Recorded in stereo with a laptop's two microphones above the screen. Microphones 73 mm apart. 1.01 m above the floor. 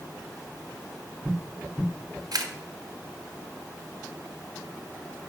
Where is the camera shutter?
60° right (ahead or behind), 1.1 m.